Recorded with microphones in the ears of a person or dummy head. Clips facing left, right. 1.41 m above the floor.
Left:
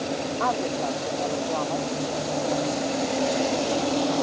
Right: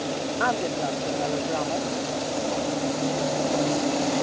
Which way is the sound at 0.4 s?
20° right (ahead or behind).